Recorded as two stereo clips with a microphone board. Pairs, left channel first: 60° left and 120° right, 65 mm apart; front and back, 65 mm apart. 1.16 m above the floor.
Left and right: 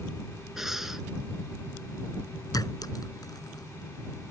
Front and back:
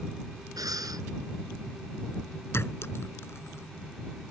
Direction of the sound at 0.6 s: 155° left.